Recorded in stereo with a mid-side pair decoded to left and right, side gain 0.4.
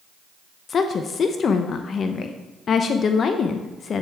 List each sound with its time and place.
0.7 s a woman speaking: 55° left, 0.6 m